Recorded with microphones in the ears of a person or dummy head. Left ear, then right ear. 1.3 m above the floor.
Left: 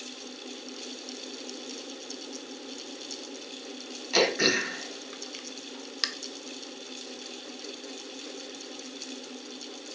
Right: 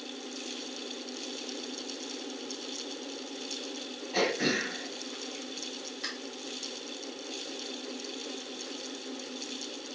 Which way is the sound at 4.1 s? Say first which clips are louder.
Left 5 dB; 70° left (ahead or behind).